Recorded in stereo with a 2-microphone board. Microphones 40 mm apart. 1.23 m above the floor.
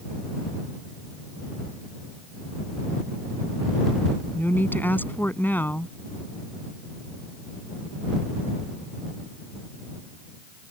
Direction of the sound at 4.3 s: 50° left (ahead or behind).